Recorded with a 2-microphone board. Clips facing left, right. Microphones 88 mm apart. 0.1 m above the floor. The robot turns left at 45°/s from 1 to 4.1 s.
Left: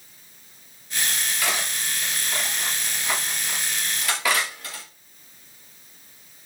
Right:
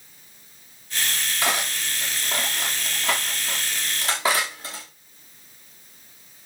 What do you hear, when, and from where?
1.4 s cutlery clinking: 30° right (ahead or behind), 6 m